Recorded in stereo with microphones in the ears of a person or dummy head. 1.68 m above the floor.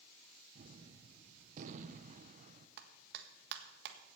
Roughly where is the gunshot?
Right.